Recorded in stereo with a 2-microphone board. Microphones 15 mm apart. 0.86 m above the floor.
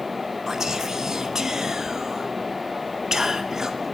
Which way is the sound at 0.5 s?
35° right (ahead or behind).